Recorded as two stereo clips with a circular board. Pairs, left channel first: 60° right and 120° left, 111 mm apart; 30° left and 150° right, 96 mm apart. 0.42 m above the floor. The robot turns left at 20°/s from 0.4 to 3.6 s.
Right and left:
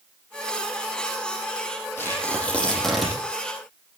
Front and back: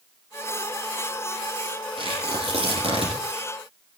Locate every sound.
2.0 s tearing paper: 130° right, 8 m; by 3.1 s 155° right, 8 m